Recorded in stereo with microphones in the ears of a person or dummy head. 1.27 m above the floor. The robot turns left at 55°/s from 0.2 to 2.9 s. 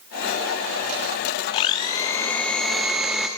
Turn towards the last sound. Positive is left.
turn(degrees=-5)  # may be behind; listen again after turning